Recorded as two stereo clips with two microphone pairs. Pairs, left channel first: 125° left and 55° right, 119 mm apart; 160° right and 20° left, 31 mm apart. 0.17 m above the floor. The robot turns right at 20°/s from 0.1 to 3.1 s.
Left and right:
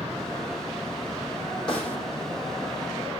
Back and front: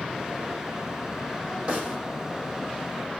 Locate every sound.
1.7 s a snare drum: 80° left, 10 m; by 2.0 s 85° left, 10 m